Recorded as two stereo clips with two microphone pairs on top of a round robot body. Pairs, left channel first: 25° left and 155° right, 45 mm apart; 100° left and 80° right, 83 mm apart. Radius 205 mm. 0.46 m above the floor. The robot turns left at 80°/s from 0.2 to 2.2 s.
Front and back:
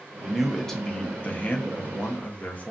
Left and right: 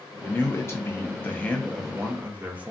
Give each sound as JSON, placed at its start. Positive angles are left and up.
{"t": 0.2, "sound": "a man speaking", "azimuth_deg": 140, "distance_m": 1.0}